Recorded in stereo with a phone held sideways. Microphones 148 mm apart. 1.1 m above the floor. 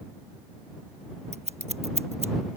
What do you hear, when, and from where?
1.3 s scissors: 45° right (ahead or behind)